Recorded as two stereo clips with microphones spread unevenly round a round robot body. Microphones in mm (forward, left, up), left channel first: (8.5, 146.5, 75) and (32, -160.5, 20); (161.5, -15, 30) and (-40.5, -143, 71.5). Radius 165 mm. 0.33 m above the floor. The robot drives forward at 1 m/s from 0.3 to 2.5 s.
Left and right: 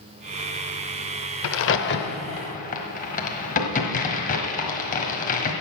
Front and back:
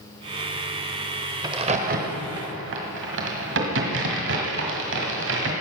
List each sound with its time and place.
1.4 s a crack: 130° left, 0.8 m; by 5.5 s 165° left, 1.6 m